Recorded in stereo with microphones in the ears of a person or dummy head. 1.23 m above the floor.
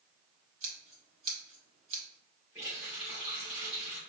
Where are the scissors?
45° right (ahead or behind), 0.9 m.